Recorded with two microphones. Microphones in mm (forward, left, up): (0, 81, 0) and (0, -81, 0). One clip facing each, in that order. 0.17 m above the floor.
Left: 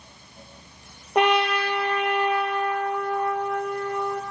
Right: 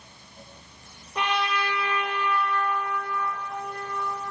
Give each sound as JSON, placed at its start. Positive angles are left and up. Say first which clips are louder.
{"t": 1.1, "sound": "a trumpet", "louder": "left 7 dB", "side_deg": 65, "distance_m": 1.8}